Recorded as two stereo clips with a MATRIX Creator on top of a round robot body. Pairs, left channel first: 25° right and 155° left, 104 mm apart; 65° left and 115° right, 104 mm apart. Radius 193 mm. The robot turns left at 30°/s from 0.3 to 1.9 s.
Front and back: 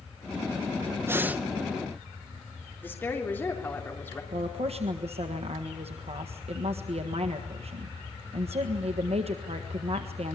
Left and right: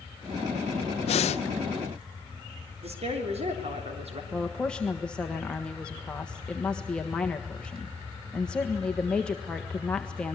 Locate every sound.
1.1 s breathing: 90° left, 0.5 m; by 1.4 s 80° left, 0.5 m
2.8 s a woman speaking: 95° right, 3.5 m
4.3 s a woman speaking: 150° left, 1.6 m